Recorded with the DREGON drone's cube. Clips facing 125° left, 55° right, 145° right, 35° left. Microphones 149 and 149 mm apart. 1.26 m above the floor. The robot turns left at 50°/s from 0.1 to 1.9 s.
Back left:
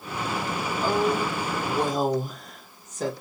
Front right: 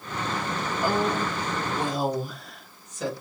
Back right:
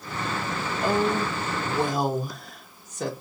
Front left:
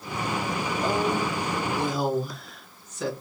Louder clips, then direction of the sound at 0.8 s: Back left 2 dB, back right 2 dB; 135° right.